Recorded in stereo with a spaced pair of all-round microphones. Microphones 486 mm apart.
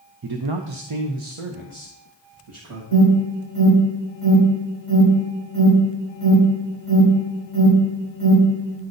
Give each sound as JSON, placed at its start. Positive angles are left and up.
{"t": 0.2, "sound": "a man speaking", "side_deg": -45, "distance_m": 0.6}
{"t": 2.9, "sound": "an alarm", "side_deg": -45, "distance_m": 4.0}